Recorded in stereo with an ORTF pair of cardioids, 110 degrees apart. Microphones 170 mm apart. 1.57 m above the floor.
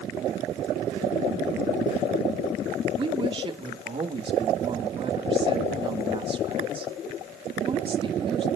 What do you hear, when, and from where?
3.0 s a woman speaking: 30° right, 2 m